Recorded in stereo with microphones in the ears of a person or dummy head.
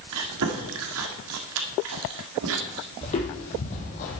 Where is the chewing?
75° right (ahead or behind), 1.9 m.